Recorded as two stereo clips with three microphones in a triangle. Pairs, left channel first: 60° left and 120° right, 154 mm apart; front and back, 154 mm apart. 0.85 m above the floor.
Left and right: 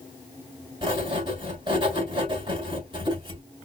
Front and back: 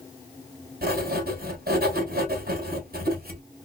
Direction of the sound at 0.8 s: Straight behind.